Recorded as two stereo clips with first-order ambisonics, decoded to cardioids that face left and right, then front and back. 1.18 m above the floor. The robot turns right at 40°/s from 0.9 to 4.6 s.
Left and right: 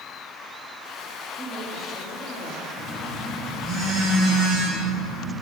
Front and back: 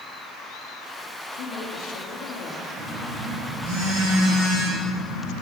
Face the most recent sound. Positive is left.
turn(degrees=-130)